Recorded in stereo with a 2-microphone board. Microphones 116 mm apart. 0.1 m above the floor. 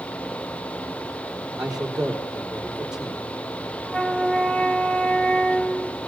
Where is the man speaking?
5° right (ahead or behind), 3.5 m.